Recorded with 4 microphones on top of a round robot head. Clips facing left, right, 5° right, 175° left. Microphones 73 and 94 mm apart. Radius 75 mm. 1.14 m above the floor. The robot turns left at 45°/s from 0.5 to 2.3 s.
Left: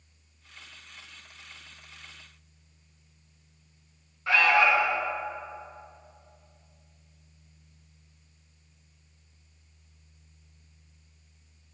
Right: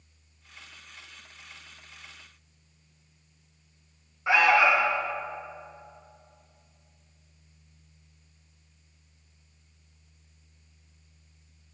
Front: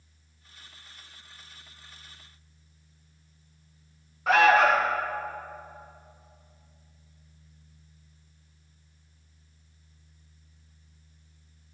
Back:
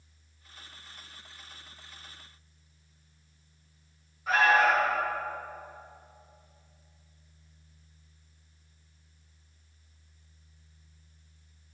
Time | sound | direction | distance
4.3 | an alarm | 15° right | 1.0 m